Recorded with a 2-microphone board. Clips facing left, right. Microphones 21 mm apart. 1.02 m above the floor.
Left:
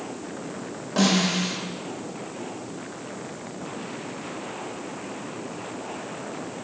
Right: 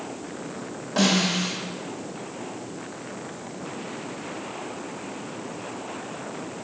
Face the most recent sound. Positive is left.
turn(degrees=0)  # may be behind; listen again after turning